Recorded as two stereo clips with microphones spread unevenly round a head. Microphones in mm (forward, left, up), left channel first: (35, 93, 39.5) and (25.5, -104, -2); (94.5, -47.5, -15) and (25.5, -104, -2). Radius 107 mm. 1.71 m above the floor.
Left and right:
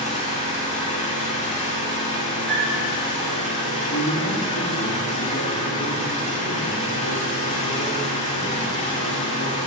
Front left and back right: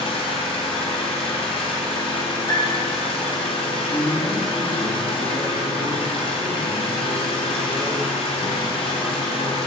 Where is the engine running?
35° left, 5 m.